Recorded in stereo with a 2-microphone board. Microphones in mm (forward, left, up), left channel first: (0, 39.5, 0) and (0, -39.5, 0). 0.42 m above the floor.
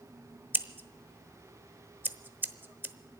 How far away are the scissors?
About 0.8 m.